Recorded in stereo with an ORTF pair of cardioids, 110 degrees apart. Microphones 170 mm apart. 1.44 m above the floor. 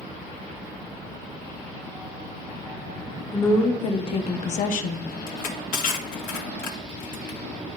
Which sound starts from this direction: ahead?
A woman speaking, at 3.3 s.